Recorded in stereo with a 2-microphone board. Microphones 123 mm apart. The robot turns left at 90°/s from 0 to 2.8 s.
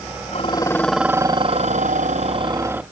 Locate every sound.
0.3 s dishes clattering: 55° left; by 2.8 s 170° right